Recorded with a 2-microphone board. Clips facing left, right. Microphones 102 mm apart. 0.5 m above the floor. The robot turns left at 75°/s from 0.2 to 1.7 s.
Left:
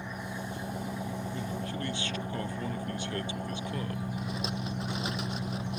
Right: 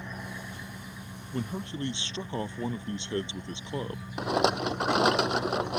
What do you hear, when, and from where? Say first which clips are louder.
0.0 s an engine running: left 2 dB; 170° left; by 5.8 s 60° left
1.3 s a man speaking: right 1 dB; 55° right (ahead or behind); by 4.1 s 25° right (ahead or behind)
4.2 s a rattle: right 9 dB; 70° right (ahead or behind)